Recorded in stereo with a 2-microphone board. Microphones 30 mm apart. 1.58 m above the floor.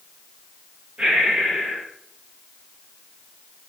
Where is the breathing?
45° right (ahead or behind), 6 m.